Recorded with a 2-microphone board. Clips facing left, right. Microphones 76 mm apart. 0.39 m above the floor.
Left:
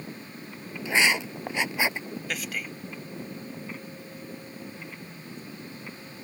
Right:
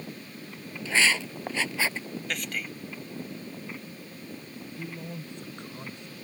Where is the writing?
15° left (ahead or behind).